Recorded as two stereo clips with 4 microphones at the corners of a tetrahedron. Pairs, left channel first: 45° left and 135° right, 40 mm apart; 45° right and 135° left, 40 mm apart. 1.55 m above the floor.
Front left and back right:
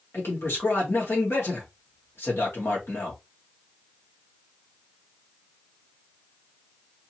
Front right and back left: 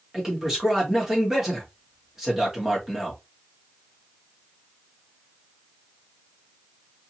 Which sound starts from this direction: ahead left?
A man speaking, at 0.1 s.